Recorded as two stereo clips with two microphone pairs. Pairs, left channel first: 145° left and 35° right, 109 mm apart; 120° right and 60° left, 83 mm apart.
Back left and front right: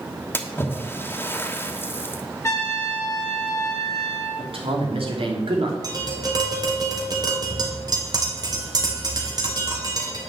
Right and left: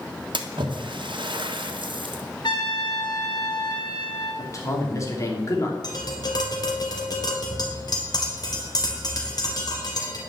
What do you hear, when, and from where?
0.3 s a splash: 75° left, 1.3 m
2.4 s a trumpet: 150° right, 3 m
4.4 s a man speaking: 70° right, 2.5 m
5.8 s tapping: 85° right, 2.5 m